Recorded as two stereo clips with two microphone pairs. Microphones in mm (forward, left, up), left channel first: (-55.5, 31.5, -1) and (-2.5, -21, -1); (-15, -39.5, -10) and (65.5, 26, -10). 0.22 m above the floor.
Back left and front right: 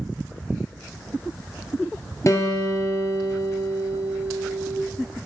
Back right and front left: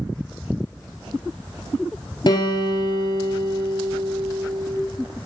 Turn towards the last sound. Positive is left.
turn(degrees=180)